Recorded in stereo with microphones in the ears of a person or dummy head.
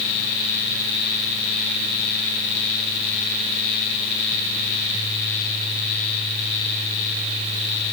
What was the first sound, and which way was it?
Only background noise.